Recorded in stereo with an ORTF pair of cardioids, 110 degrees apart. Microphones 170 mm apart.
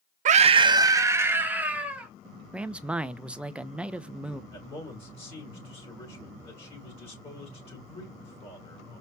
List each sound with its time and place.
0.2 s a scream: 50° right, 0.6 m; by 2.1 s 5° right, 2.5 m
2.5 s a man speaking: 5° right, 0.7 m
4.5 s a man speaking: 35° left, 4.5 m